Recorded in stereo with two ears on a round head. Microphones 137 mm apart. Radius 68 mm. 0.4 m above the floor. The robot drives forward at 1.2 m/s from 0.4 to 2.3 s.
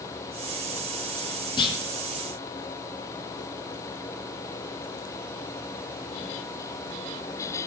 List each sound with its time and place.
1.6 s a clunk: 30° left (ahead or behind), 4 m; by 1.8 s 35° left (ahead or behind), 3.5 m